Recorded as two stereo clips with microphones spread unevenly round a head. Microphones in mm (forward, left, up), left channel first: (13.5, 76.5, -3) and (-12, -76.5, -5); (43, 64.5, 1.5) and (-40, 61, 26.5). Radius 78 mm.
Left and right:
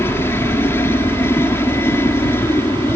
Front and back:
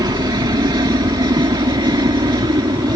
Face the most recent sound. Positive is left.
turn(degrees=155)